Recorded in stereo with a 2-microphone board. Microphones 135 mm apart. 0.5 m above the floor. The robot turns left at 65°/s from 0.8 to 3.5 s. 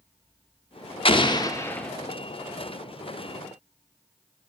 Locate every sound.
1.1 s an explosion: 65° left, 0.5 m; by 1.9 s 5° left, 0.5 m